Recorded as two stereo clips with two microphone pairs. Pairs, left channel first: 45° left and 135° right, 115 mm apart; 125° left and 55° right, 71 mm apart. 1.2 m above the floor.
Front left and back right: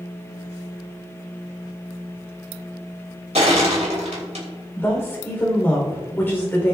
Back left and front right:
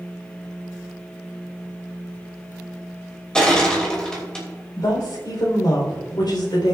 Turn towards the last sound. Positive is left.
turn(degrees=115)